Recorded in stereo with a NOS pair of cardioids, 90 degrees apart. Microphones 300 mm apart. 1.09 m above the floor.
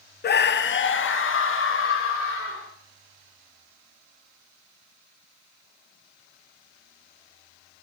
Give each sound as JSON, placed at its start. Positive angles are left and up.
{"t": 0.2, "sound": "a scream", "azimuth_deg": 35, "distance_m": 0.7}